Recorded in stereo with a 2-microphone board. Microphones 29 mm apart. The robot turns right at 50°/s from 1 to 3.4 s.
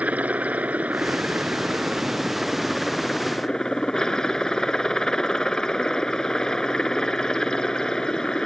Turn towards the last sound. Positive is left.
turn(degrees=25)